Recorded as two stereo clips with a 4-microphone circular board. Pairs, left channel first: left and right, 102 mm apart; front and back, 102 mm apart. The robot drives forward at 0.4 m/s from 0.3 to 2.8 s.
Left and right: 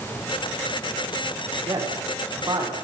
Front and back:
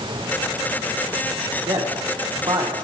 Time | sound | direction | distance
1.6 | a man speaking | 145° right | 8 m